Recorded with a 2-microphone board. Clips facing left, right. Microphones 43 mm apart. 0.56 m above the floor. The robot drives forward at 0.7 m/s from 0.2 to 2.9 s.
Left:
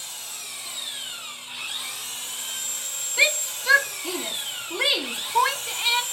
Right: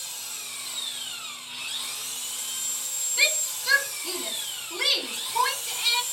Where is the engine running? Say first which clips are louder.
Left 1 dB; 20° left (ahead or behind), 3 m; by 6.1 s 40° left (ahead or behind), 1.6 m.